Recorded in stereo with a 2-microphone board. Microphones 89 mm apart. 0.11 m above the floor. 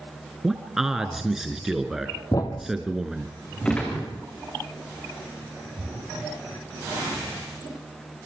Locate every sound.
0.4 s a man speaking: 5° right (ahead or behind), 1.6 m
2.3 s a thud: 45° left (ahead or behind), 2.0 m
3.6 s a gunshot: 10° left (ahead or behind), 5.5 m